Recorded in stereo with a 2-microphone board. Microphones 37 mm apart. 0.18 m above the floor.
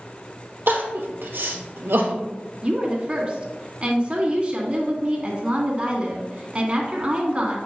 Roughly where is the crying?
Right.